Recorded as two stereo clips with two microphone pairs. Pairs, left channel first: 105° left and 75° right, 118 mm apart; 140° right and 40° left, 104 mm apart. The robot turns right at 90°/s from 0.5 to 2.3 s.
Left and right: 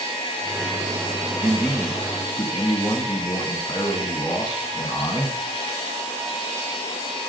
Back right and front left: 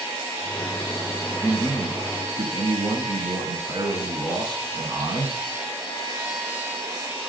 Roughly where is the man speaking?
Ahead.